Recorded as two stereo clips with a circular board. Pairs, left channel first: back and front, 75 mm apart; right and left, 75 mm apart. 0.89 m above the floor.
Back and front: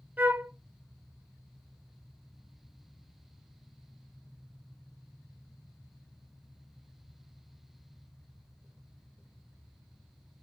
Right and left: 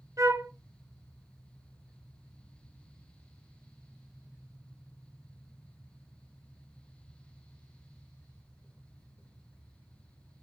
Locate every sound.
0.2 s a flute: 65° left, 1.0 m